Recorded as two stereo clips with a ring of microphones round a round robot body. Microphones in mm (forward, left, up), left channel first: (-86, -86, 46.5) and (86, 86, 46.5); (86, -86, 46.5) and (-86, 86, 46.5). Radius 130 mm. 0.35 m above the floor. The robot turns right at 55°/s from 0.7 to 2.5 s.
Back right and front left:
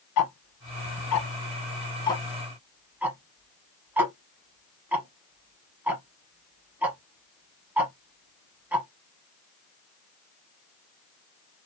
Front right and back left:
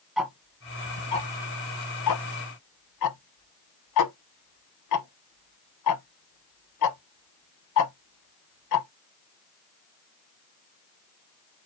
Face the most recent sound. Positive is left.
turn(degrees=-40)